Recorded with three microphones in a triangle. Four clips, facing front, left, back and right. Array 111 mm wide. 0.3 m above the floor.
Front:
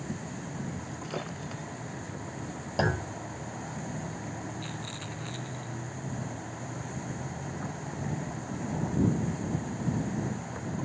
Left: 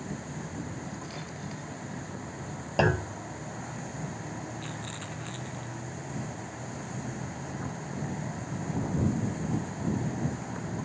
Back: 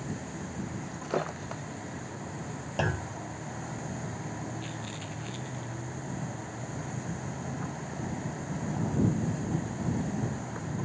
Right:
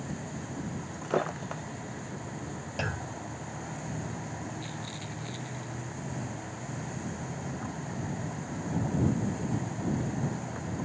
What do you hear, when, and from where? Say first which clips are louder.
0.9 s breaking glass: right 9 dB, back 5 dB; 115° right
2.8 s a clunk: left 11 dB, front 3 dB; 80° left
4.6 s a rattle: left 1 dB, even; 65° left